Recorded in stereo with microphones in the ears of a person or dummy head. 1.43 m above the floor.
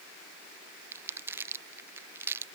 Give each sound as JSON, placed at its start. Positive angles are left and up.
{"t": 0.9, "sound": "crumpling", "side_deg": -15}